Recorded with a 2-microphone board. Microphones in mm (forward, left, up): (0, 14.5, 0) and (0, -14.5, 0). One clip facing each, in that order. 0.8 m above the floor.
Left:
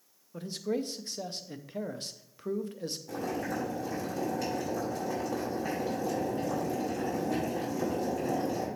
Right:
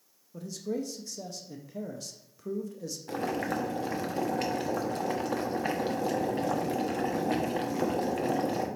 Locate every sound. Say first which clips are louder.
0.3 s a man speaking: left 1 dB; 45° left (ahead or behind), 0.5 m
3.1 s boiling: right 4 dB; 60° right (ahead or behind), 1.0 m